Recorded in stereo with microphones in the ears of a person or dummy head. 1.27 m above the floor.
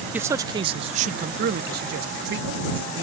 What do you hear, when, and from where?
0.1 s a man speaking: 10° right (ahead or behind); by 3.0 s 65° right (ahead or behind)